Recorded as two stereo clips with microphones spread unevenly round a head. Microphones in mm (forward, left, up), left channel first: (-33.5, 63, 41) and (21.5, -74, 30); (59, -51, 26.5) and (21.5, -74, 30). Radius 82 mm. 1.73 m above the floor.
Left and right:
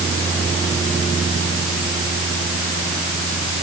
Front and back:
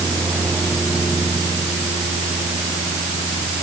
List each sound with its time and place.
Only background noise.